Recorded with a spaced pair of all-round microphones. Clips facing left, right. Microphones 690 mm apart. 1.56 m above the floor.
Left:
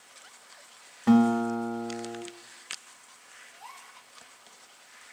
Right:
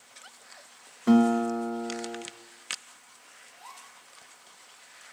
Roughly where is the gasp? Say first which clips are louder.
Left 1 dB; left.